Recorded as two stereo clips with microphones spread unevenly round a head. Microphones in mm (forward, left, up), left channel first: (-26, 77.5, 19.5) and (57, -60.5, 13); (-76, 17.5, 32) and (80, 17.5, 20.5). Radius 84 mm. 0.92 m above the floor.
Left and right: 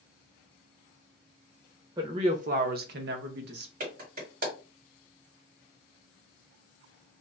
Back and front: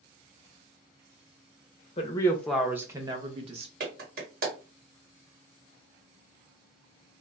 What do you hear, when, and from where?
2.0 s a woman speaking: 125° right, 0.6 m; by 3.7 s 50° right, 1.0 m
3.8 s a clap: 30° right, 1.6 m